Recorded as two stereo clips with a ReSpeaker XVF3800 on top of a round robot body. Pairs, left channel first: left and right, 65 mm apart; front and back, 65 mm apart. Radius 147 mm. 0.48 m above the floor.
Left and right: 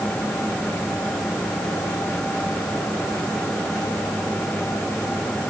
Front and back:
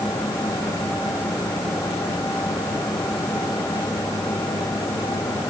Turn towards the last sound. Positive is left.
No sound to turn to.